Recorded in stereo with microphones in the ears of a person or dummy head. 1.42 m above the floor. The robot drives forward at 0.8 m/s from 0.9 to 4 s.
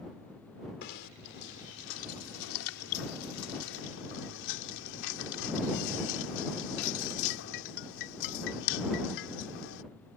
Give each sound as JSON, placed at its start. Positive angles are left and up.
{"t": 0.8, "sound": "knocking", "side_deg": 55}